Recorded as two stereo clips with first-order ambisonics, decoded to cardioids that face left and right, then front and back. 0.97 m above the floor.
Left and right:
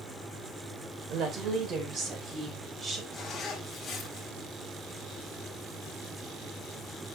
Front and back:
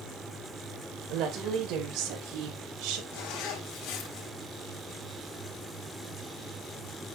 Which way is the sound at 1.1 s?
135° right.